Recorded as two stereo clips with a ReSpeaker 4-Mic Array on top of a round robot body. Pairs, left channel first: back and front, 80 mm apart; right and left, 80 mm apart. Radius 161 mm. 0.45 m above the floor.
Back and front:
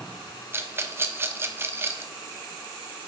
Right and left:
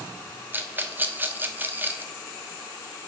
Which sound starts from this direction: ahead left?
A rattle, at 0.5 s.